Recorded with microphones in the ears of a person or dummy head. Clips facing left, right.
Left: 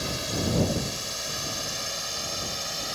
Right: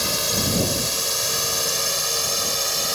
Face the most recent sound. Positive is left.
turn(degrees=-80)